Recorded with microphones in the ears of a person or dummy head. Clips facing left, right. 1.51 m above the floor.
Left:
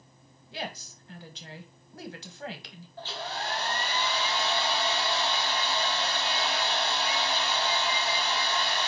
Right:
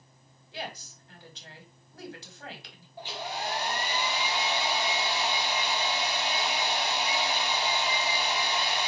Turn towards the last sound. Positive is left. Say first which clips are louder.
# right 1 dB
turn(degrees=-10)  # may be behind; listen again after turning